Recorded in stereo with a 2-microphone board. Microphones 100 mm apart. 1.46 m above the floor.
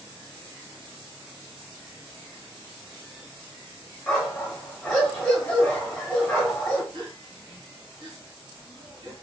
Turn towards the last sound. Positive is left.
turn(degrees=-50)  # may be behind; listen again after turning